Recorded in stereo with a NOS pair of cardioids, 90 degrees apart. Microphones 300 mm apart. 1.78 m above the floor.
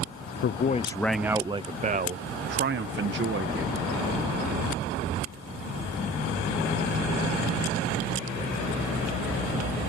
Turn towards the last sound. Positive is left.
turn(degrees=-45)